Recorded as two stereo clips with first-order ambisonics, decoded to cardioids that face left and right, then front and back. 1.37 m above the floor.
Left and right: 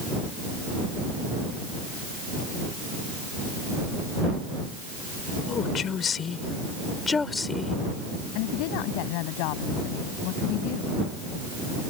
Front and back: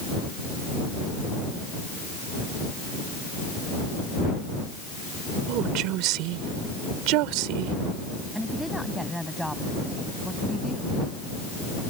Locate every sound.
5.5 s a woman speaking: 150° left; by 7.8 s 170° left
8.3 s a woman speaking: 90° left